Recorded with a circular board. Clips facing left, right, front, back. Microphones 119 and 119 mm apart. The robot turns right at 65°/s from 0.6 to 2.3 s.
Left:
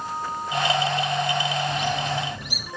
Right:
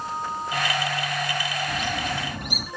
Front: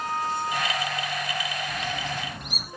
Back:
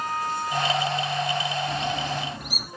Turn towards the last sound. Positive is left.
turn(degrees=-95)